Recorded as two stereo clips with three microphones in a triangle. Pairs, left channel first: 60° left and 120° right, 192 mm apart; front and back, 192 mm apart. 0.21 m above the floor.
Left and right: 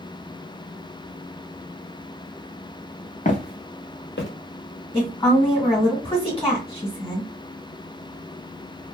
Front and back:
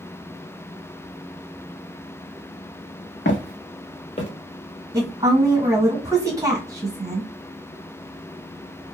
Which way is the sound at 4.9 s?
120° left.